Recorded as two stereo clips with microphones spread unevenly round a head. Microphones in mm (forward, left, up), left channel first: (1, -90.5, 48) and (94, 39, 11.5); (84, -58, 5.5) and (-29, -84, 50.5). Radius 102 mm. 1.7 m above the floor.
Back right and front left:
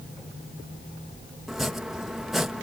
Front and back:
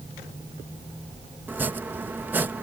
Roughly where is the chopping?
Behind.